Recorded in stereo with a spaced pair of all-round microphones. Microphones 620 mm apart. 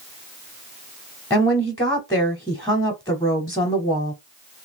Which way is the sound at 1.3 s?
5° left (ahead or behind).